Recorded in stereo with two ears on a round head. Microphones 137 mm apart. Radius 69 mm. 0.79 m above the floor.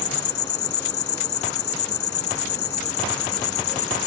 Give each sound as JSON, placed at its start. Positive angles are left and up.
{"t": 0.0, "sound": "an insect", "side_deg": 85}